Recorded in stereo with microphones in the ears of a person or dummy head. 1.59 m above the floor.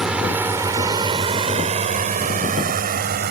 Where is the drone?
5° right (ahead or behind); by 3.3 s 50° right (ahead or behind).